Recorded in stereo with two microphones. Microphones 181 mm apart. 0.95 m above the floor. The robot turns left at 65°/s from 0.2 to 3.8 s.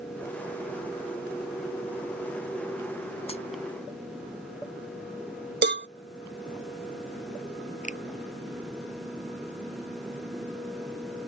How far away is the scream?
No scream in this recording.